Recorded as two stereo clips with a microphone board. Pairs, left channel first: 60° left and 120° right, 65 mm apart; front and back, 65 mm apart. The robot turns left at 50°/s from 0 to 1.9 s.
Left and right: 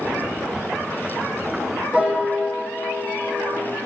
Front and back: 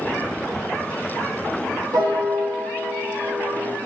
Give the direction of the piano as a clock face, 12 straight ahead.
6 o'clock.